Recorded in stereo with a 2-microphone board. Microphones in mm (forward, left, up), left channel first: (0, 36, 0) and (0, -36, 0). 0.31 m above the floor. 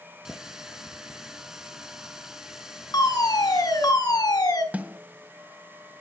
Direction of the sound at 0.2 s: 10° right (ahead or behind).